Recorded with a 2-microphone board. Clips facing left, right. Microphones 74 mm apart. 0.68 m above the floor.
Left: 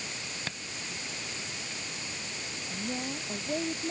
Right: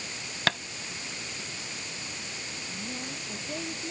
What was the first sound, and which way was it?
Tapping, 75° right (ahead or behind).